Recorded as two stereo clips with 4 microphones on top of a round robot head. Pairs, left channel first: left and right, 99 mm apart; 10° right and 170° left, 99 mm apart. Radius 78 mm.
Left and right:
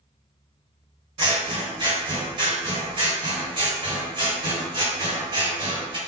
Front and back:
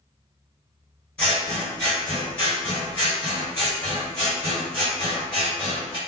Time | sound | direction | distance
1.2 | scissors | 85° right | 1.6 m